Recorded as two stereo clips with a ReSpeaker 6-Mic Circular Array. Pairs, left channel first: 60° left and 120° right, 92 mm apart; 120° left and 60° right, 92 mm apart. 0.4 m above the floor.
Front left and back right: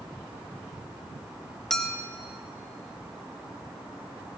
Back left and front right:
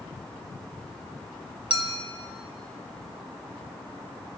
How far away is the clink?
About 0.8 m.